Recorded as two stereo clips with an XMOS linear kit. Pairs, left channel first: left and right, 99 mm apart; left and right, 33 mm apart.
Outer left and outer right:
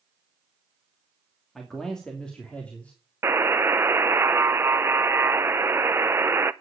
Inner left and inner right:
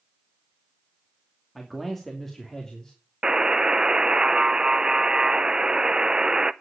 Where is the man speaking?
5° left (ahead or behind), 2.5 m; by 2.9 s 15° left (ahead or behind), 3 m.